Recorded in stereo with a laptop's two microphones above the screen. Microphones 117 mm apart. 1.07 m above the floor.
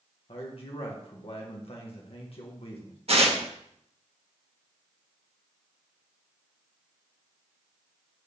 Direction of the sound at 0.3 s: 55° left (ahead or behind).